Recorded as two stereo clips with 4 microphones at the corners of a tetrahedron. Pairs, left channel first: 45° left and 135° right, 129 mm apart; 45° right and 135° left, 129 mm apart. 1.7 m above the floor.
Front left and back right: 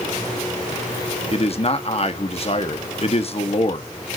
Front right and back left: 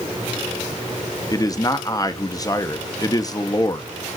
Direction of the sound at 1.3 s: 15° left.